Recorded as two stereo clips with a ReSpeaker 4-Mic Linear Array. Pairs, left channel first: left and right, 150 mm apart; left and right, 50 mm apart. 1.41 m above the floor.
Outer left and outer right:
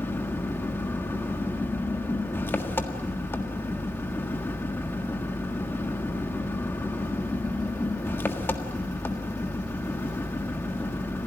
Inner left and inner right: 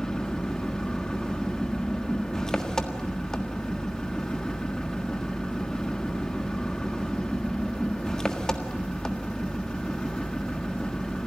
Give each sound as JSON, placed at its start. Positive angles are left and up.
{"t": 0.0, "sound": "an engine running", "side_deg": 15, "distance_m": 1.5}